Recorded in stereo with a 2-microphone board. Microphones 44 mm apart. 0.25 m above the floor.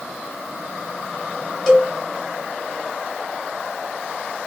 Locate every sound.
1.7 s a cowbell: 5° left (ahead or behind), 1.1 m